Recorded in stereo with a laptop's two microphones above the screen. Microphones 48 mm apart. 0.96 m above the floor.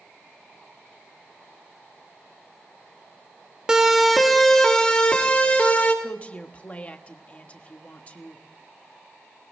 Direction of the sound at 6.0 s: 30° left (ahead or behind).